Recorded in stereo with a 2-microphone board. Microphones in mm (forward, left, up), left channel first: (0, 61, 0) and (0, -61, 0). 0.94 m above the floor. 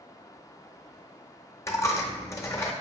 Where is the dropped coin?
25° left (ahead or behind), 0.6 m.